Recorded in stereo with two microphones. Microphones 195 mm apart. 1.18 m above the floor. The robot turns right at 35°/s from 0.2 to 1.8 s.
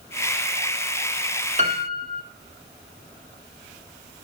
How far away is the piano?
About 1.9 m.